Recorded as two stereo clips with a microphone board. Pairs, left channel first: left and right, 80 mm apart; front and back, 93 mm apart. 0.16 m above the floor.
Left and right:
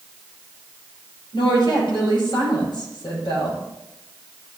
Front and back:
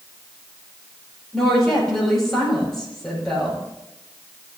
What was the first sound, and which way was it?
A woman speaking, 85° left.